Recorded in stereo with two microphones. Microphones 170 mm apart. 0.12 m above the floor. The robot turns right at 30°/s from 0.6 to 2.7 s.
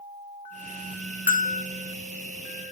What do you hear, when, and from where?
1.3 s a bell: 55° left (ahead or behind), 0.6 m